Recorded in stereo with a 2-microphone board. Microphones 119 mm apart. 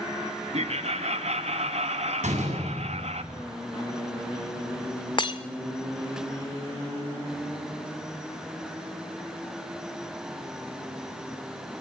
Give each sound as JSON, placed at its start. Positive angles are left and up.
{"t": 0.5, "sound": "laughter", "side_deg": -60, "distance_m": 1.4}
{"t": 2.2, "sound": "a door slam", "side_deg": -75, "distance_m": 9.0}
{"t": 5.2, "sound": "breaking glass", "side_deg": 40, "distance_m": 1.5}